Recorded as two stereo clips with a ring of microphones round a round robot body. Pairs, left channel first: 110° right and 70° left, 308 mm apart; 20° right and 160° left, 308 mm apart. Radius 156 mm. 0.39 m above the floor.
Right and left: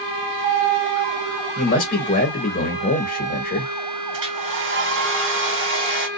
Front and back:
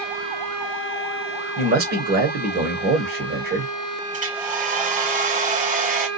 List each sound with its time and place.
1.6 s a man speaking: 160° right, 1.4 m
4.1 s a hair dryer: 100° left, 1.1 m